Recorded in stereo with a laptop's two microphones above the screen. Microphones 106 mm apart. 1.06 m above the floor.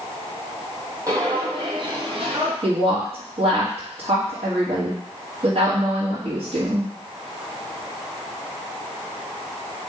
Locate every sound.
1.1 s footsteps: 30° right (ahead or behind), 1.5 m; by 2.5 s 55° right (ahead or behind), 1.8 m
2.6 s a woman speaking: 65° right (ahead or behind), 1.9 m